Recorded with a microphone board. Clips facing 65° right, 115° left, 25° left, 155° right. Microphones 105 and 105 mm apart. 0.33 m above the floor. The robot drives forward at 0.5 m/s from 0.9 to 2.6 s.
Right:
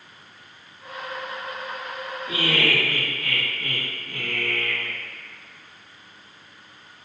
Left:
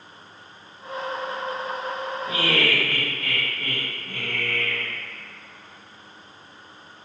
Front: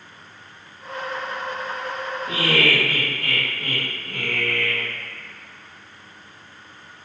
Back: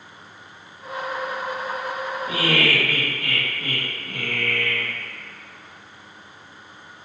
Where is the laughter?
125° left, 1.5 m; by 4.9 s 130° left, 1.5 m.